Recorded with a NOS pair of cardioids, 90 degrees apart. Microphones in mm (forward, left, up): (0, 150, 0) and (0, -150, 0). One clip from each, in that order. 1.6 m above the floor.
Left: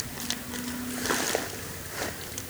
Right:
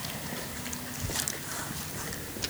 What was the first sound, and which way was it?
Only background noise.